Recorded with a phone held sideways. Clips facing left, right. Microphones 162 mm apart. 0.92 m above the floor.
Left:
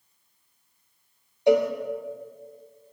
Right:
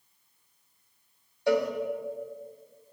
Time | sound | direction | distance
1.5 | a cowbell | 20° left (ahead or behind) | 1.4 m